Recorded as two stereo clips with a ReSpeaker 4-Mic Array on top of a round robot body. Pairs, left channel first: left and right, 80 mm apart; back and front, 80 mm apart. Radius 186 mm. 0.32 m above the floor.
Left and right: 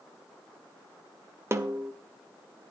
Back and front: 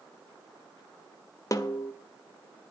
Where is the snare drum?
140° right, 2.0 m.